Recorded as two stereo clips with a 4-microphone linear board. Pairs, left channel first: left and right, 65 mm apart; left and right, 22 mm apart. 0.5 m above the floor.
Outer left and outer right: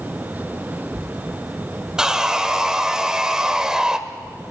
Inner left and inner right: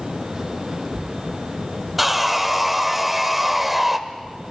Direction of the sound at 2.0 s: 10° right (ahead or behind).